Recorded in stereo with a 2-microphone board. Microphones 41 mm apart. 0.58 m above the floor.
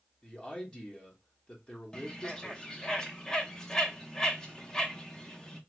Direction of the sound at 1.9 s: 15° left (ahead or behind).